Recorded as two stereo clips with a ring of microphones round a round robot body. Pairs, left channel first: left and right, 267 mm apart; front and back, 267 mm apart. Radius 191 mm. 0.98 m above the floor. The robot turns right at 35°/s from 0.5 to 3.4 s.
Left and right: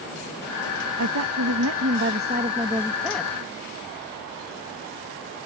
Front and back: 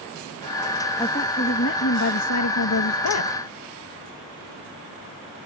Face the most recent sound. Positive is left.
turn(degrees=10)